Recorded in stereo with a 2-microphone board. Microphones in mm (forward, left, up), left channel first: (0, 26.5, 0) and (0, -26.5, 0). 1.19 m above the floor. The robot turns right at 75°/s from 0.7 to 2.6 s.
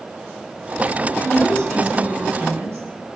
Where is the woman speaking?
130° left, 6.5 m; by 2.8 s 125° right, 6.5 m.